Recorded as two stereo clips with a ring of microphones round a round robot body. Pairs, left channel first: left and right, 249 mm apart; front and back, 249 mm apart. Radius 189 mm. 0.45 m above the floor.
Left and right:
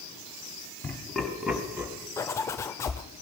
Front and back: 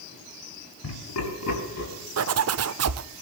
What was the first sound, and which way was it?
Laughter, 10° left.